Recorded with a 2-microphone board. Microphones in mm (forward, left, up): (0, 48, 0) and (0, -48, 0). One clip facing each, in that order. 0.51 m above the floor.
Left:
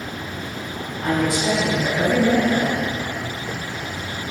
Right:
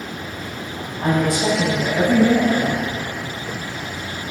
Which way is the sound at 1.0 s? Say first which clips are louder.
Right 2 dB; 55° right (ahead or behind).